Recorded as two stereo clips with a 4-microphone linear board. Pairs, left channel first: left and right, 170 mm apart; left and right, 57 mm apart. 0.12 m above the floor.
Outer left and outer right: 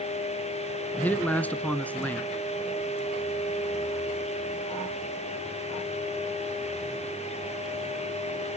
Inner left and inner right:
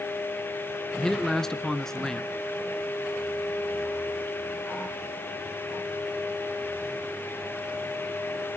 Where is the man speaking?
10° left (ahead or behind), 1.2 m.